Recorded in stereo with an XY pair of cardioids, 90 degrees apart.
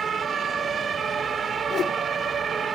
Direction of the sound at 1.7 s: 65° left.